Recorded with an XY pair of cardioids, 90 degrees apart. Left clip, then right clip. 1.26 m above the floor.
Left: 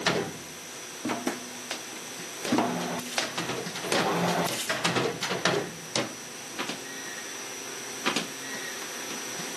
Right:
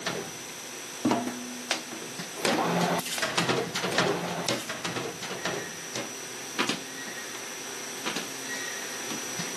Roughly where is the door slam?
No door slam in this recording.